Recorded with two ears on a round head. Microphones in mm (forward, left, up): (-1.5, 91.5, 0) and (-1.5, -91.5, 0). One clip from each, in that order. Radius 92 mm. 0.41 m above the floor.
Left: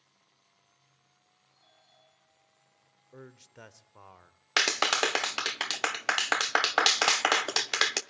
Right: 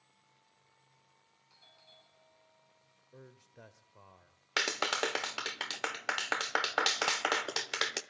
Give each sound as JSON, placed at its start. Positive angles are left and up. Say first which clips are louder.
{"t": 1.5, "sound": "a doorbell", "louder": "right 4 dB", "side_deg": -50, "distance_m": 6.5}
{"t": 3.1, "sound": "a man speaking", "louder": "left 6 dB", "side_deg": 40, "distance_m": 1.1}
{"t": 4.6, "sound": "a clap", "louder": "left 6 dB", "side_deg": 20, "distance_m": 0.7}